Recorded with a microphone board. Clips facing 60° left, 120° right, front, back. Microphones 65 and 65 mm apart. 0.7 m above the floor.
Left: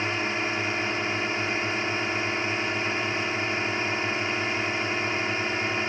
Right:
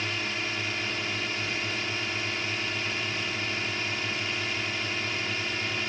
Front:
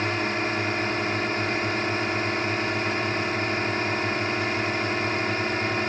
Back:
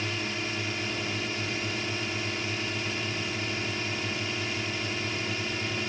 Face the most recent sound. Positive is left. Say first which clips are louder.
# left 5 dB, front 7 dB
turn(degrees=10)